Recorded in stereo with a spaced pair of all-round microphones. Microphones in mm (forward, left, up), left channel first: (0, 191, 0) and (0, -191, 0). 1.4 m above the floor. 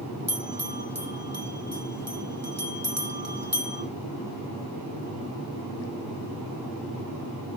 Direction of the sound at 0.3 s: 40° right (ahead or behind).